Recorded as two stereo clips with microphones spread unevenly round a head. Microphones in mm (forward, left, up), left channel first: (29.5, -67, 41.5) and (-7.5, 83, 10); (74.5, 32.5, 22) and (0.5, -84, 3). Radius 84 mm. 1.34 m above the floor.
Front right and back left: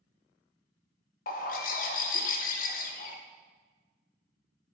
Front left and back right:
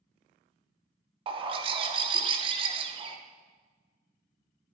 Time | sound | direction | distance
1.3 | a bird | 70° right | 0.5 m